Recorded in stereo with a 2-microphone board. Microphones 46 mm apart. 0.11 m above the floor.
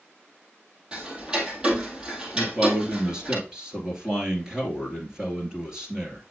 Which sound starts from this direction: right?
Ticking, at 0.9 s.